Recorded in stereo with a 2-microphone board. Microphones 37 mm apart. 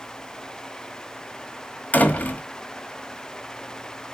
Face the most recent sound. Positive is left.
turn(degrees=45)  # may be behind; listen again after turning